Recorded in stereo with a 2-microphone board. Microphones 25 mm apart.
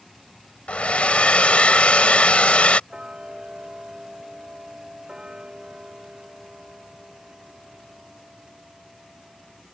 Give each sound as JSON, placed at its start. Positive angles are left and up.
{"t": 0.7, "sound": "a hair dryer", "side_deg": 55}
{"t": 2.9, "sound": "ticking", "side_deg": -35}